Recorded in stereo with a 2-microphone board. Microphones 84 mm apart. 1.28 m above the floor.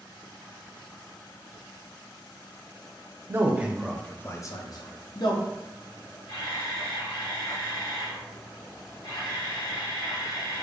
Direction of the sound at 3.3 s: 30° right (ahead or behind).